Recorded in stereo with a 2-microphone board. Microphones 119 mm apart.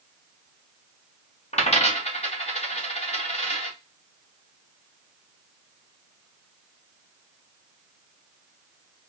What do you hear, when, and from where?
1.5 s a dropped coin: 60° left (ahead or behind), 2.5 m